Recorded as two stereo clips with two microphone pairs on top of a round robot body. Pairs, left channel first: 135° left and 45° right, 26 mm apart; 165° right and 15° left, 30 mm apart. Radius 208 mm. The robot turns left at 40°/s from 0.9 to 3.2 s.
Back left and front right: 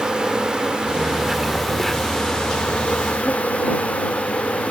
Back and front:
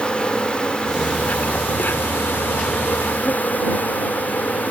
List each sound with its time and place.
0.0 s an insect: 105° right; by 4.7 s 160° left